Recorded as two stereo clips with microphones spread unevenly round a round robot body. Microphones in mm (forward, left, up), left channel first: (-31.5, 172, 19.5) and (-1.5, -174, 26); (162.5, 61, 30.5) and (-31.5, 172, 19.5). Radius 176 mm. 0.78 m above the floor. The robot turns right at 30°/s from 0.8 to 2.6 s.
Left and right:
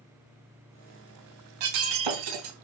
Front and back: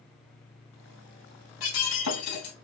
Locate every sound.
1.6 s breaking glass: 85° right, 4 m; by 2.5 s 55° right, 4 m